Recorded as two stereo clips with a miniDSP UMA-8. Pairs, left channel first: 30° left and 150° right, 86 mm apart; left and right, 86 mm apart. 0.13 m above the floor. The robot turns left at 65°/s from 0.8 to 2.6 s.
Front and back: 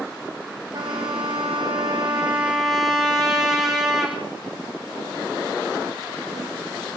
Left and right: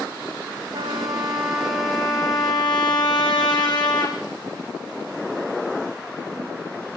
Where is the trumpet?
120° right, 4 m; by 4.2 s 125° left, 4 m.